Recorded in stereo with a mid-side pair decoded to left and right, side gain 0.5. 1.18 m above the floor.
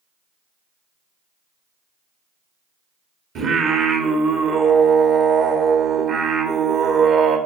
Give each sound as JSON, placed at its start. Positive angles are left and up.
{"t": 3.4, "sound": "singing", "azimuth_deg": -65, "distance_m": 1.9}